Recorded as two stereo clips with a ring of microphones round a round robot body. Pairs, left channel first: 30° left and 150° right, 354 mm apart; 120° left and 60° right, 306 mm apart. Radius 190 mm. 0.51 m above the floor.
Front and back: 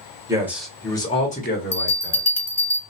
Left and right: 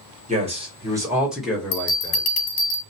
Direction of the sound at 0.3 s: 85° right.